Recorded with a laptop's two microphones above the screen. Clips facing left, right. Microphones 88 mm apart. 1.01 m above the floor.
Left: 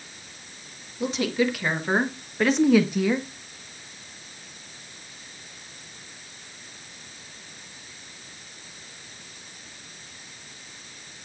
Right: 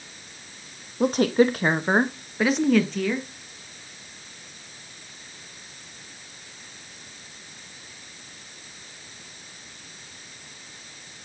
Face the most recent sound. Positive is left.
turn(degrees=20)  # may be behind; listen again after turning